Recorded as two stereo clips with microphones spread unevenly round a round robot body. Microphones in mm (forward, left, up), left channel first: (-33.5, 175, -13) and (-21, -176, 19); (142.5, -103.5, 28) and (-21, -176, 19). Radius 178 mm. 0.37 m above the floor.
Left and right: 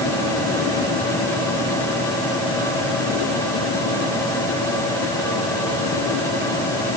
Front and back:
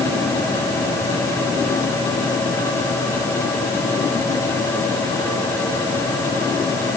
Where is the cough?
No cough in this recording.